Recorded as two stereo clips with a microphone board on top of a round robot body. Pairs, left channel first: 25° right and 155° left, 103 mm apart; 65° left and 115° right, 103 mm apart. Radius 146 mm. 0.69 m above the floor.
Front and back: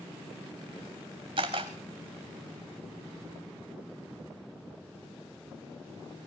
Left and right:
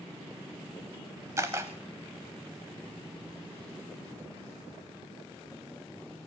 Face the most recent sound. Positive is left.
turn(degrees=-170)